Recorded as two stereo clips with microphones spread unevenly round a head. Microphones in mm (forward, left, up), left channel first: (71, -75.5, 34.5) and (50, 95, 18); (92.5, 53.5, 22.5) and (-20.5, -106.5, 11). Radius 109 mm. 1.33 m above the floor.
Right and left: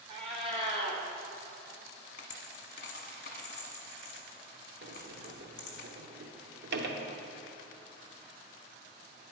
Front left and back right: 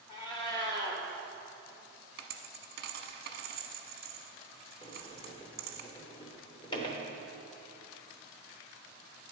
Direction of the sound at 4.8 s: 125° left.